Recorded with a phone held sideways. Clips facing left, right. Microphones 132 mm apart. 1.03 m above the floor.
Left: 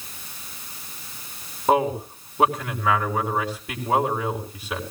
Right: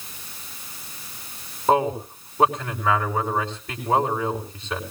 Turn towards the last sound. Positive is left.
turn(degrees=10)  # may be behind; listen again after turning